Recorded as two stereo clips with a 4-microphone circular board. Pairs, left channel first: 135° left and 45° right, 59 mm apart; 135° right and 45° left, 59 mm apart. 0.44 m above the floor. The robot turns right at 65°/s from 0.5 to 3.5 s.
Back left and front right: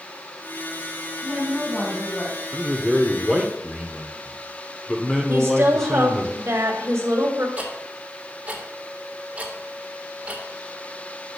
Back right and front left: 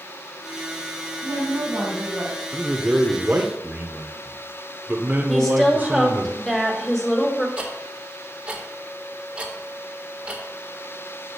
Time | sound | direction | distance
1.2 | a woman speaking | 40° left | 3.5 m
2.5 | a man speaking | straight ahead | 0.9 m
5.3 | a woman speaking | 55° right | 1.6 m
7.6 | ticking | 10° right | 1.5 m